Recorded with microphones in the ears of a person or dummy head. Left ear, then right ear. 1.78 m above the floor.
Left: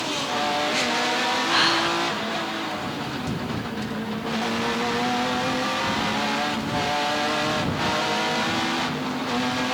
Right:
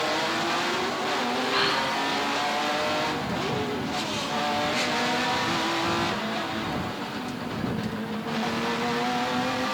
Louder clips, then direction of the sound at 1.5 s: Left 4 dB; 10° left (ahead or behind).